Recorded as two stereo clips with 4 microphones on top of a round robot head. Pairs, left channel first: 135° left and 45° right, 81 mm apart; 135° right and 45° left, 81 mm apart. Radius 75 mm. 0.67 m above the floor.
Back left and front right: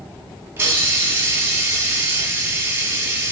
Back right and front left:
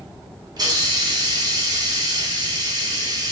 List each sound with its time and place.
0.6 s a hiss: 10° left, 2.0 m